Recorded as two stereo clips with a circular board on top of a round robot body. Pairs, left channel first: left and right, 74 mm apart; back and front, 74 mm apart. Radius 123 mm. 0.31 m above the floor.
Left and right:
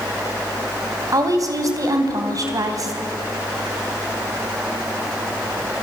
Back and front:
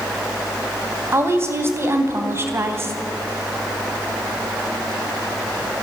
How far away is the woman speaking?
About 3.5 m.